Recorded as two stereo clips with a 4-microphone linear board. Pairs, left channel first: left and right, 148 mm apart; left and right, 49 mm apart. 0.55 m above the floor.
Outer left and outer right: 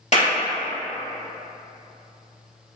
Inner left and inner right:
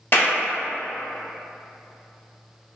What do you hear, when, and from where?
0.1 s a clap: 50° left (ahead or behind), 1.4 m